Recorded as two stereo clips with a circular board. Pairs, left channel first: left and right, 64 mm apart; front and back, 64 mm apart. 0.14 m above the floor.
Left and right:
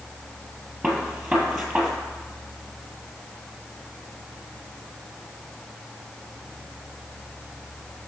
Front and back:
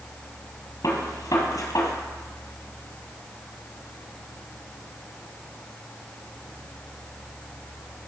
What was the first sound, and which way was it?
A gunshot, straight ahead.